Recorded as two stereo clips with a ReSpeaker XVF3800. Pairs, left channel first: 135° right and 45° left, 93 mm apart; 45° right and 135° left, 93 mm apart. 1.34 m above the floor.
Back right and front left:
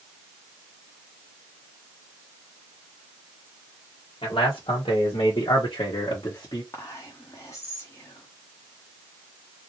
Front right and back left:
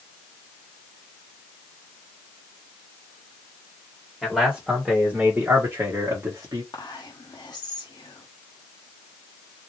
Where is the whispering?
85° right, 1.1 m.